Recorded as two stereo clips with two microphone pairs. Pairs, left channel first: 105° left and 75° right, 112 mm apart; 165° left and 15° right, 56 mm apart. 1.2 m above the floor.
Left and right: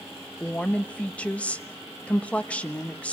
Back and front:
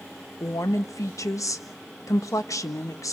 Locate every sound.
0.4 s a woman speaking: 175° right, 1.3 m